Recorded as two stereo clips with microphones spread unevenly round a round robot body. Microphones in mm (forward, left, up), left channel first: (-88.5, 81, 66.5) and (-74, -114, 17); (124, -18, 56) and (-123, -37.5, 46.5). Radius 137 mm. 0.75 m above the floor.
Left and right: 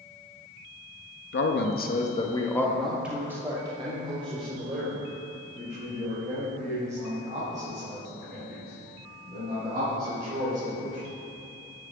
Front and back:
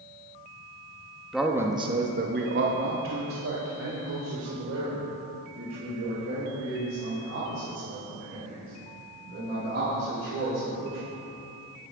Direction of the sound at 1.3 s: 95° left.